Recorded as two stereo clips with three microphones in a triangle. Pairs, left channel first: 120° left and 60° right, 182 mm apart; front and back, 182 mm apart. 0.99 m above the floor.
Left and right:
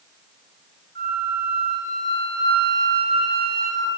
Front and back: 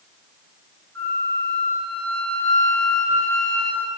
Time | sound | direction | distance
0.9 | a flute | 85° right | 4.5 m